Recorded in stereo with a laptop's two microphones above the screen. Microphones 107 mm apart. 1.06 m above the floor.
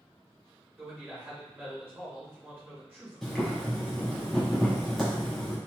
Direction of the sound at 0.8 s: 20° right (ahead or behind).